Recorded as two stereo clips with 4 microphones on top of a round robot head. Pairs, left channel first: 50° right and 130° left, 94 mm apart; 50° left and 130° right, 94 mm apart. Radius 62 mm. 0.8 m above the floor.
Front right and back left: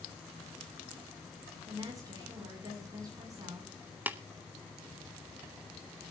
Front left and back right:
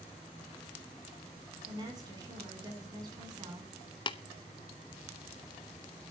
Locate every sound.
1.7 s a woman speaking: 175° right, 8.5 m
4.1 s tapping: 60° left, 1.3 m